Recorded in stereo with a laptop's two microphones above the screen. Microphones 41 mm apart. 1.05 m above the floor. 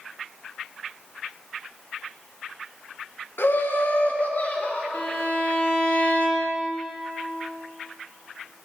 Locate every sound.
3.4 s laughter: 70° left (ahead or behind), 1.0 m; by 4.8 s 35° left (ahead or behind), 2 m
4.9 s a violin: 60° left (ahead or behind), 1.6 m